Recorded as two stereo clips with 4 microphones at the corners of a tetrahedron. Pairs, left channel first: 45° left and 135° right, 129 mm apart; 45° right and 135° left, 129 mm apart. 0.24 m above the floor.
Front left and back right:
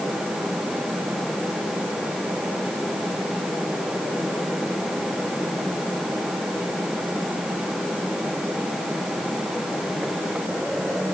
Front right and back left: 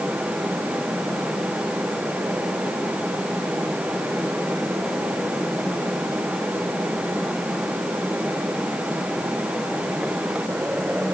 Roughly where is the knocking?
I don't hear knocking.